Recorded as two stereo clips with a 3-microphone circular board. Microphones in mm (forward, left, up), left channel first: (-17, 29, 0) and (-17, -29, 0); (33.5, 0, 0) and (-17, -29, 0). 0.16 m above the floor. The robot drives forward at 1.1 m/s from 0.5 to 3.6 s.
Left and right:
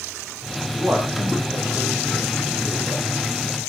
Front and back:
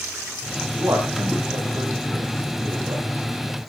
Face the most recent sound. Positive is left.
turn(degrees=-145)